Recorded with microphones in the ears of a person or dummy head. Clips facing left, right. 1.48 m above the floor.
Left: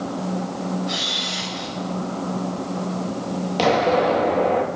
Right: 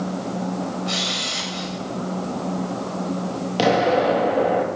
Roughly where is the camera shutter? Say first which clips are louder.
Right 1 dB; right.